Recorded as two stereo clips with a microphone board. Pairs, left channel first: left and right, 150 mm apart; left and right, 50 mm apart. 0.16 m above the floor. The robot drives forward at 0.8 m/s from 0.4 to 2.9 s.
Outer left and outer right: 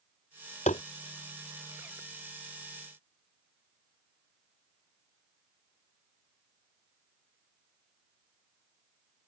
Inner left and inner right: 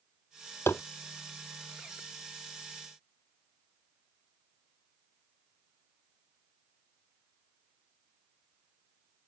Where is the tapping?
55° left (ahead or behind); by 0.8 s 50° left (ahead or behind).